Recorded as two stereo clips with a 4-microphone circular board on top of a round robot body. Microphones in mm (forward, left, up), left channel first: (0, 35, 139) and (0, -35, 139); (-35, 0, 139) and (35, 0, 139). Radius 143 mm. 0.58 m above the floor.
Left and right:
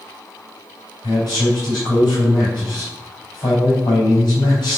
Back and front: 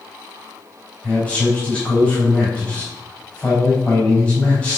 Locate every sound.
1.0 s a man speaking: 115° left, 4 m